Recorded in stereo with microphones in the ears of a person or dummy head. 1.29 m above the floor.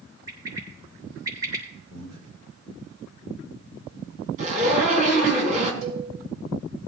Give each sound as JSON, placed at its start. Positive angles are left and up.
{"t": 0.3, "sound": "a bird", "side_deg": -20, "distance_m": 5.5}
{"t": 1.9, "sound": "breathing", "side_deg": -80, "distance_m": 4.5}
{"t": 4.4, "sound": "a zipper", "side_deg": -45, "distance_m": 4.0}
{"t": 5.8, "sound": "a cowbell", "side_deg": -45, "distance_m": 8.0}